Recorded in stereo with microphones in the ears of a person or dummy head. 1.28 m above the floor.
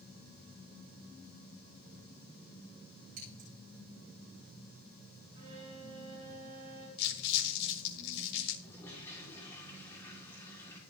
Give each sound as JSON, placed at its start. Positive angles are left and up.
{"t": 3.2, "sound": "scissors", "side_deg": -45, "distance_m": 9.5}
{"t": 5.3, "sound": "a violin", "side_deg": -35, "distance_m": 5.5}
{"t": 7.0, "sound": "crumpling", "side_deg": 60, "distance_m": 8.0}
{"t": 8.6, "sound": "a toilet flushing", "side_deg": 15, "distance_m": 4.0}